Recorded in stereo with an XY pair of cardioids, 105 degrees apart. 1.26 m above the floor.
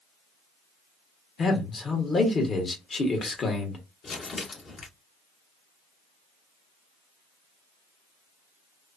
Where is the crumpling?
45° left, 1.4 m.